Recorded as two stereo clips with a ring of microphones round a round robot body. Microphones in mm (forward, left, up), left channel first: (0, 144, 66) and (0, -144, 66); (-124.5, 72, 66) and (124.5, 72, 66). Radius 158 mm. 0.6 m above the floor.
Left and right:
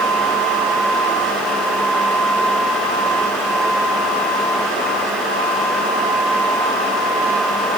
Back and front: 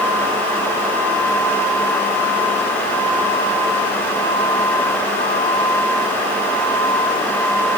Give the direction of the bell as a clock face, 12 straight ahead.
No bell in this recording.